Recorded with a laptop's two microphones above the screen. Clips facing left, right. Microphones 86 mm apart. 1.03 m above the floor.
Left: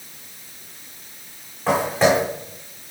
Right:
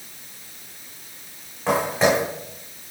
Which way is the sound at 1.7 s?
Centre (ahead or behind).